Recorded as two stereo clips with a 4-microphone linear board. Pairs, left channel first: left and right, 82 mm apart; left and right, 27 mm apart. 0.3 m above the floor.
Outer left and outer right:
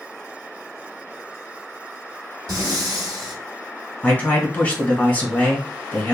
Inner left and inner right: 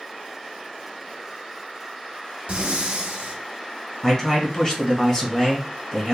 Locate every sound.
2.5 s breathing: 50° right (ahead or behind), 0.8 m
4.0 s a man speaking: 20° left (ahead or behind), 1.2 m